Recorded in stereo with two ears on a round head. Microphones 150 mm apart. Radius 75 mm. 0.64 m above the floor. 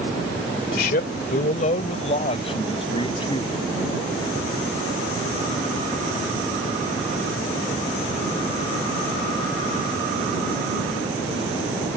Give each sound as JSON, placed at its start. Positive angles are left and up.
{"t": 0.7, "sound": "a man speaking", "side_deg": 65}